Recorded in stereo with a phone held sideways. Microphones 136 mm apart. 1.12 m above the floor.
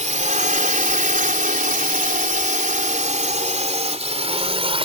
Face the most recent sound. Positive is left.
turn(degrees=-45)  # may be behind; listen again after turning